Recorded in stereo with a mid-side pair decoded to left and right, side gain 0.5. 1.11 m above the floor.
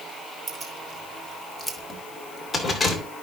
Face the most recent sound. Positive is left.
turn(degrees=25)